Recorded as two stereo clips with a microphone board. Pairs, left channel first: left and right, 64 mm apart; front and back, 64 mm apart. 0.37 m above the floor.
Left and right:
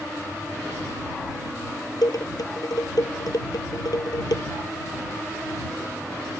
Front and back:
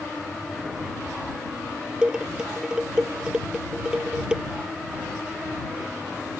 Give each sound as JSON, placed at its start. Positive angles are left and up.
{"t": 2.0, "sound": "dishes clattering", "azimuth_deg": 105}